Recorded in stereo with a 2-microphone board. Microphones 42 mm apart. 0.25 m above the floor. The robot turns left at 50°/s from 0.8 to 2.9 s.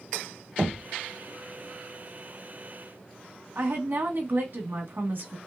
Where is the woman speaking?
55° right (ahead or behind), 1.7 m.